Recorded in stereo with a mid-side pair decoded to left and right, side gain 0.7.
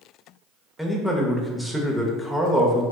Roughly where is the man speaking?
Ahead.